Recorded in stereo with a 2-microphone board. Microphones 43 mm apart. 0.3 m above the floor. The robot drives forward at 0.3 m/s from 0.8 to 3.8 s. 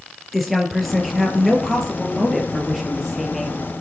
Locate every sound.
0.3 s a woman speaking: 5° left (ahead or behind), 4.5 m; by 3.6 s centre (ahead or behind), 5.5 m